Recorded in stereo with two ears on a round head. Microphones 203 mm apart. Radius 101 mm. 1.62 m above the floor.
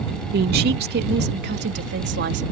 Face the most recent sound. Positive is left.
turn(degrees=-55)  # may be behind; listen again after turning